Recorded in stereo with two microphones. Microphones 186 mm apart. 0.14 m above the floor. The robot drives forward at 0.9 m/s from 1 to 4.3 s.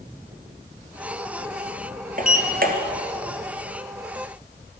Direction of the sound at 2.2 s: 50° right (ahead or behind).